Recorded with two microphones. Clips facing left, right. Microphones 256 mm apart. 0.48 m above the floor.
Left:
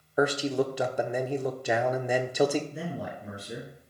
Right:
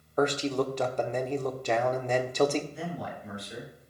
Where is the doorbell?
No doorbell in this recording.